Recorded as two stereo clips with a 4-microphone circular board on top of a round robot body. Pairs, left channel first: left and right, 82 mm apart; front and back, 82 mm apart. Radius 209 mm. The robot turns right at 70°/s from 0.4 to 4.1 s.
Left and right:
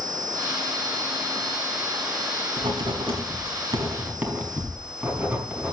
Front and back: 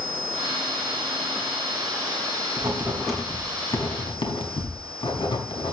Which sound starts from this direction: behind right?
Writing, at 2.6 s.